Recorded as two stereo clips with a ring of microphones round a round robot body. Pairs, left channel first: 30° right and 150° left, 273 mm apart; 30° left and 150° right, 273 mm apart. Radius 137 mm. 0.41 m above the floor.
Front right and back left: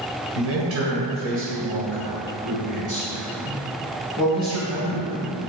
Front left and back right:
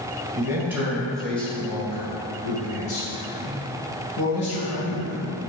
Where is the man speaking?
140° left, 2 m; by 5.4 s 75° left, 4 m.